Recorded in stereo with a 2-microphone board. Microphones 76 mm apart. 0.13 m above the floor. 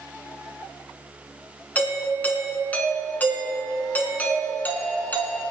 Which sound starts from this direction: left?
A doorbell, at 1.8 s.